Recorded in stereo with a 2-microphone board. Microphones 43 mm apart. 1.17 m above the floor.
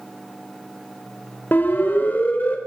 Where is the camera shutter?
I don't hear a camera shutter.